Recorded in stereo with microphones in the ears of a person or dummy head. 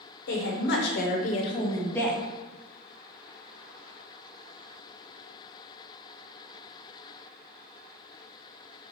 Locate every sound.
0.3 s a woman speaking: 65° left (ahead or behind), 0.9 m; by 2.2 s 10° left (ahead or behind), 1.2 m